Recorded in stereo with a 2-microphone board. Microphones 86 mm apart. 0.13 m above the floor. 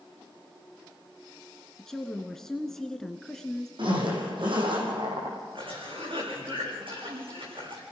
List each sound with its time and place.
1.8 s a woman speaking: 5° left (ahead or behind), 1.3 m
3.8 s a zipper: 70° right (ahead or behind), 5 m
5.5 s a cough: 80° right, 7.5 m